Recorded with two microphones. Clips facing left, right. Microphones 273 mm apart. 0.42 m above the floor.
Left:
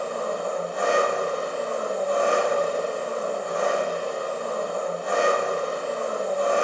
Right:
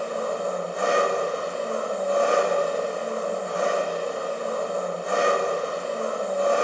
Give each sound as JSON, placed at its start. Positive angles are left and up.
{"t": 0.0, "sound": "an engine running", "side_deg": 60, "distance_m": 1.0}